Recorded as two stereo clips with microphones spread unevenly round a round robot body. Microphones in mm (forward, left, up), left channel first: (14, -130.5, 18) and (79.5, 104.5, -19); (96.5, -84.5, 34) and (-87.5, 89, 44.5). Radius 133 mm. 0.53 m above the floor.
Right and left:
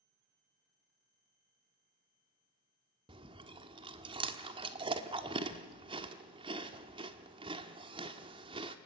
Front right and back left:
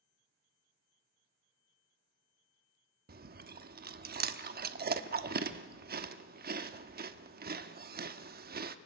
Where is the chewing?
115° left, 1.1 m.